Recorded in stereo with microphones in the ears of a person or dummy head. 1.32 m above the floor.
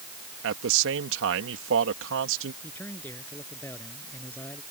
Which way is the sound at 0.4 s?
75° right (ahead or behind).